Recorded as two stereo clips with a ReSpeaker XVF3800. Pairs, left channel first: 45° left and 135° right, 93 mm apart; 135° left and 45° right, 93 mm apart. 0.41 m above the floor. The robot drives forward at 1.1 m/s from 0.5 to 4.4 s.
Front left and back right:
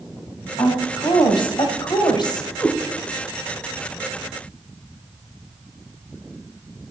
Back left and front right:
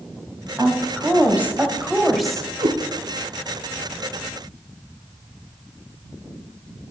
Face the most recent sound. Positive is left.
turn(degrees=-120)